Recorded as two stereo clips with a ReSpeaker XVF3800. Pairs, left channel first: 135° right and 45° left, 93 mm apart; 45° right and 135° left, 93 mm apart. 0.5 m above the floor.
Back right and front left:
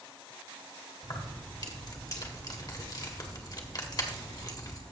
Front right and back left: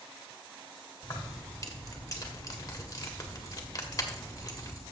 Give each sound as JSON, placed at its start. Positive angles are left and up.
{"t": 1.0, "sound": "keys jangling", "azimuth_deg": -95, "distance_m": 1.4}